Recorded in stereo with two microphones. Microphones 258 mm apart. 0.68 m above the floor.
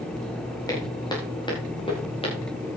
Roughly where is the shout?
I don't hear a shout.